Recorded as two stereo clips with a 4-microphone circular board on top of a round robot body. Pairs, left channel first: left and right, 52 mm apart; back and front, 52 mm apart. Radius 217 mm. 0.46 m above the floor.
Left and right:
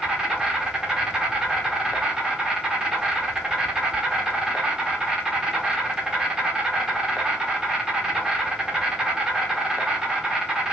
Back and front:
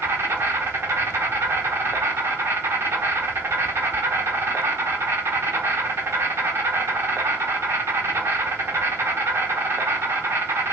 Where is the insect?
15° right, 1.3 m.